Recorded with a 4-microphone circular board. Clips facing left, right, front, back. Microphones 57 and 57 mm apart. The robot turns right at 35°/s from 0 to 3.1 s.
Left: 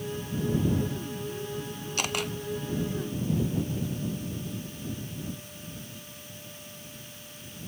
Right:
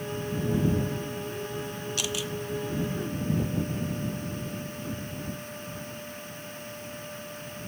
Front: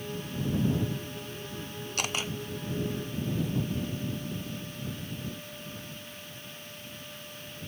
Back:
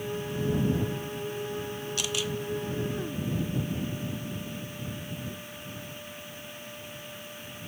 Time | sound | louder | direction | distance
2.0 | a camera shutter | left 3 dB, front 1 dB | 45° left | ?